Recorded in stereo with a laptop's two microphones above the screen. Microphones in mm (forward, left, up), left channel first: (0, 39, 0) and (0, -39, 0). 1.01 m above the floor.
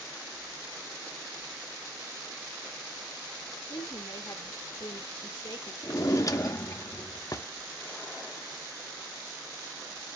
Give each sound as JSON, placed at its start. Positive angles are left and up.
{"t": 3.7, "sound": "a woman speaking", "side_deg": 70, "distance_m": 1.5}
{"t": 5.8, "sound": "a drawer", "side_deg": 45, "distance_m": 0.5}